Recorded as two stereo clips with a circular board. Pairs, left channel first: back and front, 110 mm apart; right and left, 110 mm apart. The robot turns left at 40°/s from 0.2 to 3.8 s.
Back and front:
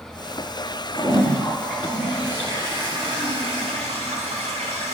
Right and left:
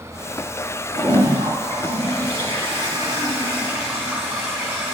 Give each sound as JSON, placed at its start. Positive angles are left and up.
{"t": 0.9, "sound": "a toilet flushing", "azimuth_deg": 125, "distance_m": 5.0}